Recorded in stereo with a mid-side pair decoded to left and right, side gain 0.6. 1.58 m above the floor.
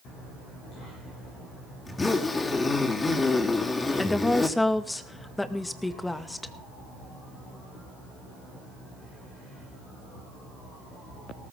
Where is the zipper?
20° left, 3.5 m.